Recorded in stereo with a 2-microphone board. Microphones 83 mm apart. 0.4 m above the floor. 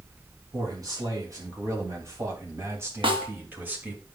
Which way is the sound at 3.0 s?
75° right (ahead or behind).